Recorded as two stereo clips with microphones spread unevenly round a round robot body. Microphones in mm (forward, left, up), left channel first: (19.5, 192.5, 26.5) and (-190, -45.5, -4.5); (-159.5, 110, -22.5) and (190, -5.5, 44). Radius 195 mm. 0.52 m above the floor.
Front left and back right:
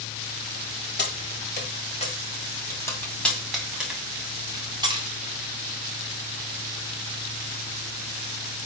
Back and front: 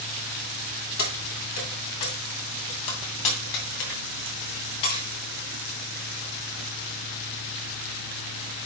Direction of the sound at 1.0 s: 105° left.